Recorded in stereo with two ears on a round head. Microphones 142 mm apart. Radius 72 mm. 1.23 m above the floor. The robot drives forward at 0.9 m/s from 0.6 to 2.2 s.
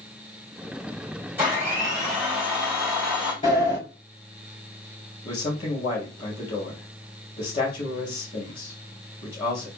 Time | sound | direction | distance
1.4 | a blender | 15° right (ahead or behind) | 1.9 m
3.4 | a sliding door | 30° left (ahead or behind) | 3 m
5.2 | a man speaking | 30° left (ahead or behind) | 2.5 m